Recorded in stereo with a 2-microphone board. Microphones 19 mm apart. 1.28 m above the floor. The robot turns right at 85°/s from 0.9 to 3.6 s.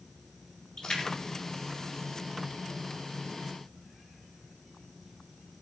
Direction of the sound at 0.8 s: 50° left (ahead or behind).